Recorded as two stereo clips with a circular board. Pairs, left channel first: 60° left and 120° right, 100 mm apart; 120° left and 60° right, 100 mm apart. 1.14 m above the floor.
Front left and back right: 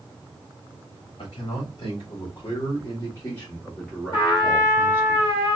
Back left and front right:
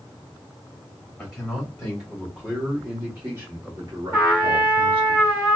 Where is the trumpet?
15° left, 1.7 m.